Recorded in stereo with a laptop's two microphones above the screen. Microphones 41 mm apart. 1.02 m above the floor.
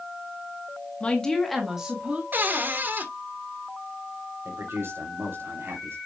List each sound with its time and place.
1.0 s a woman speaking: 30° left (ahead or behind), 1.4 m; by 2.2 s 30° right (ahead or behind), 1.8 m
2.3 s a cupboard door: 50° right (ahead or behind), 1.6 m
4.5 s a man speaking: 80° right, 3 m